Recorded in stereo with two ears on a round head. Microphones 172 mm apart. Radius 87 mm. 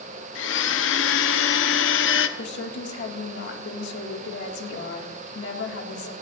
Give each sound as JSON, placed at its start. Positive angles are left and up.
{"t": 0.3, "sound": "a blender", "side_deg": 70, "distance_m": 0.9}
{"t": 2.4, "sound": "a woman speaking", "side_deg": 65, "distance_m": 2.0}